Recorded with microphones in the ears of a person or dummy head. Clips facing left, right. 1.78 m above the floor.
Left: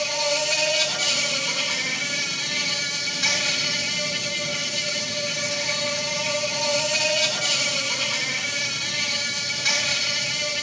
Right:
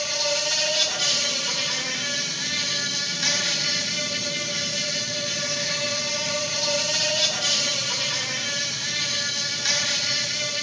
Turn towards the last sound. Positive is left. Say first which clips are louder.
# left 3 dB
turn(degrees=-5)  # may be behind; listen again after turning